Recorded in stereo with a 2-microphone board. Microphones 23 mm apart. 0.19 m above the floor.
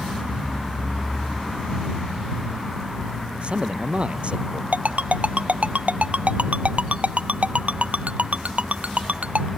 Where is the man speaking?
50° right (ahead or behind).